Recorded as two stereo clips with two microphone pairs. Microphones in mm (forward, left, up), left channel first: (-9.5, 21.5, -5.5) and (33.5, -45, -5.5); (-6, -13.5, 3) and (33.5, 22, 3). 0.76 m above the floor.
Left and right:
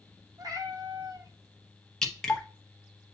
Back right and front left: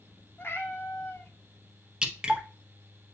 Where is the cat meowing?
95° right, 0.8 m.